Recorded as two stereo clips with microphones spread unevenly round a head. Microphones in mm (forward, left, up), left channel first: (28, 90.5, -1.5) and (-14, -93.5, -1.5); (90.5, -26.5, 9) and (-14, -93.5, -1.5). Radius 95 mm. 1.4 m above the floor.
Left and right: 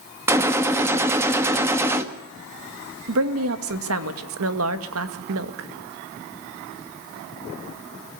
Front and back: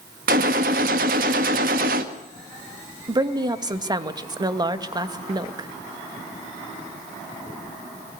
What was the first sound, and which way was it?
A gunshot, straight behind.